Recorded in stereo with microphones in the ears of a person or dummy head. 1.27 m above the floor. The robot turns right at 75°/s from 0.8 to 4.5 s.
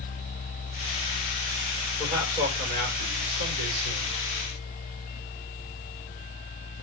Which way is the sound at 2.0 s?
165° left.